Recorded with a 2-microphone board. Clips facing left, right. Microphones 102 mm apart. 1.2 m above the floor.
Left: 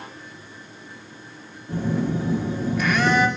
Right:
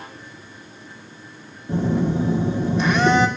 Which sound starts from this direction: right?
A phone buzzing, at 1.7 s.